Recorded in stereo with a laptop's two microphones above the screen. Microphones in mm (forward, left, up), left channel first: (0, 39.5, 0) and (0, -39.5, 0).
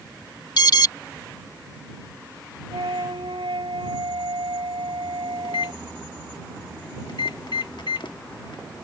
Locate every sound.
0.6 s an alarm: 60° left (ahead or behind)
2.7 s a flute: 90° right
5.4 s a microwave: 80° left